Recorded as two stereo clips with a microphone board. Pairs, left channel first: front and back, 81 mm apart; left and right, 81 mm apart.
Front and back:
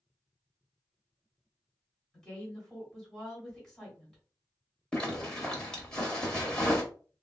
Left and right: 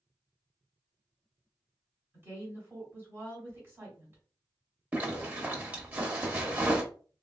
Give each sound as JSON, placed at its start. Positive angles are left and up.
{"t": 2.1, "sound": "a woman speaking", "azimuth_deg": -70, "distance_m": 1.6}
{"t": 4.9, "sound": "a zipper", "azimuth_deg": -60, "distance_m": 0.9}